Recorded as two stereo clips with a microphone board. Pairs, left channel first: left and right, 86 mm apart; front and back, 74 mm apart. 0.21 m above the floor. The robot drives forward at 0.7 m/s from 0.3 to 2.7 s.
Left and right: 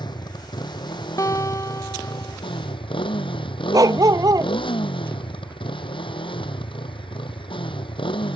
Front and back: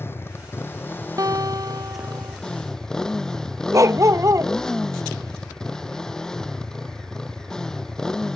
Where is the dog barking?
135° right.